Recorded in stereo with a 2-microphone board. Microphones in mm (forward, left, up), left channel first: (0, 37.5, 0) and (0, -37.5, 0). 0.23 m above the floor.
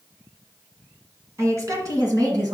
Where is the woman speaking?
40° right (ahead or behind), 2 m; by 2.5 s 60° right (ahead or behind), 2.5 m.